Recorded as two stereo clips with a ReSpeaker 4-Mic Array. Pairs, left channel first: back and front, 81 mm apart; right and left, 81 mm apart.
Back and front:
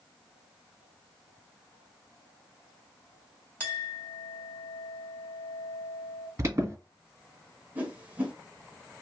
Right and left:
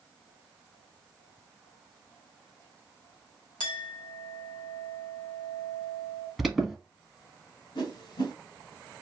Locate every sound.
3.6 s a clink: 115° right, 1.8 m
6.4 s an alarm: straight ahead, 1.1 m
7.8 s a whoosh: 70° right, 1.0 m